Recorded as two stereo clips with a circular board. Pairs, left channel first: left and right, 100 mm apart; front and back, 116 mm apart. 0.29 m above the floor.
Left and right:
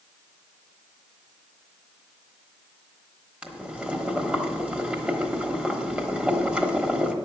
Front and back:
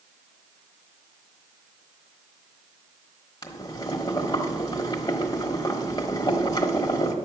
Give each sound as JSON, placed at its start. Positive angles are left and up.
{"t": 3.4, "sound": "boiling", "azimuth_deg": -20, "distance_m": 1.2}